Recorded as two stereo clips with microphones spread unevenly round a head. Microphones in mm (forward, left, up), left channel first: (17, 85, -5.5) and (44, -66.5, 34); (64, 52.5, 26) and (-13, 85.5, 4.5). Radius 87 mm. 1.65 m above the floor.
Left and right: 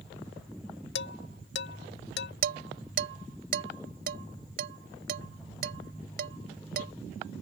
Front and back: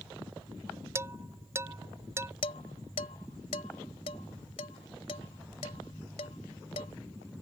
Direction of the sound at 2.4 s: 60° right.